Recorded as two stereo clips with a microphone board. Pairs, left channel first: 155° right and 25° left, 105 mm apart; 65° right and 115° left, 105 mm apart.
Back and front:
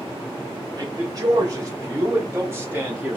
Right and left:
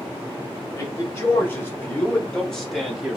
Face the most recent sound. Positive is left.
turn(degrees=50)